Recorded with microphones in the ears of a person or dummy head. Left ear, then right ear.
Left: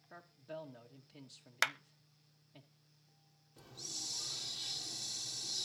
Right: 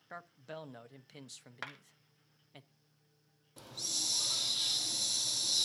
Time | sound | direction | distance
0.1 | a man speaking | 80° right | 1.1 m
1.6 | a clap | 70° left (ahead or behind) | 0.8 m
3.6 | a hiss | 45° right (ahead or behind) | 0.7 m